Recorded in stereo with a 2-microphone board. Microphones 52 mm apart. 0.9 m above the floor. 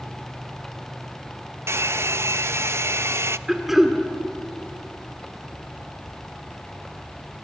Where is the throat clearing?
5° right (ahead or behind), 1.9 m.